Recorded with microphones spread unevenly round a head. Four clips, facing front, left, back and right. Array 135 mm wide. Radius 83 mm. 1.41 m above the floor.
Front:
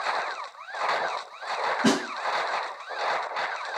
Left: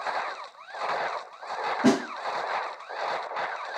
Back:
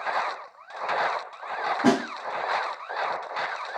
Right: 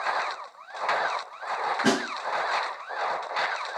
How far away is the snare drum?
About 2.5 m.